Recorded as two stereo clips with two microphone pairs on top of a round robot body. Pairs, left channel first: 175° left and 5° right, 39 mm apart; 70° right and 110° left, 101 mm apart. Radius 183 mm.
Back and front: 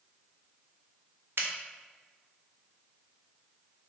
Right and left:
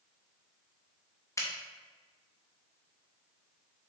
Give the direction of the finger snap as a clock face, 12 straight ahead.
1 o'clock.